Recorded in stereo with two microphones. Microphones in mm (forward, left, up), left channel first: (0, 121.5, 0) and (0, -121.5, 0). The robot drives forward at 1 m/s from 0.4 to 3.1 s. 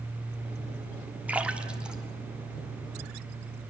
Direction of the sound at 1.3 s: 5° right (ahead or behind).